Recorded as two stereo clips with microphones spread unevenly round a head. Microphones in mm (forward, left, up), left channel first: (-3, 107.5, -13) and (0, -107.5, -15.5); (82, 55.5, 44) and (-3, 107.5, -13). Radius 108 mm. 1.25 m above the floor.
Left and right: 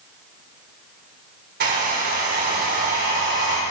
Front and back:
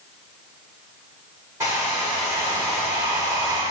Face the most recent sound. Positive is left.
turn(degrees=-135)